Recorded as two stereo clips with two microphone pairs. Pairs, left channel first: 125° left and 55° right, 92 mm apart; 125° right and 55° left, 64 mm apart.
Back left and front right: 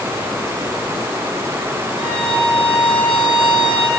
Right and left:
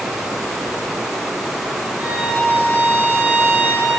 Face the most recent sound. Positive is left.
turn(degrees=110)